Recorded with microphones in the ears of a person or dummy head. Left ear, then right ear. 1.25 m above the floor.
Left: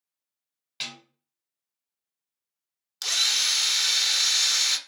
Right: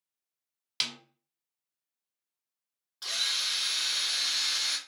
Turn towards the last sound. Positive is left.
turn(degrees=75)  # may be behind; listen again after turning